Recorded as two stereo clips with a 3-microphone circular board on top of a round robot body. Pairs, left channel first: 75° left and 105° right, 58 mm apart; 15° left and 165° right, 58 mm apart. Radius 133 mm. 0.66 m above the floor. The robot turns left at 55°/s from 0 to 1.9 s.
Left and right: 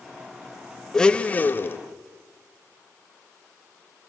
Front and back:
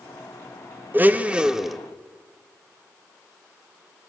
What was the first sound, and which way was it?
A blender, 150° left.